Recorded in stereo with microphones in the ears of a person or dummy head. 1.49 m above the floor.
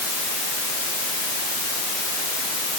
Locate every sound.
Only background noise.